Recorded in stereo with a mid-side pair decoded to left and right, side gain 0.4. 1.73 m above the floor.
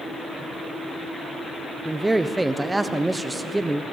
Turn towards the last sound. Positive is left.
turn(degrees=-15)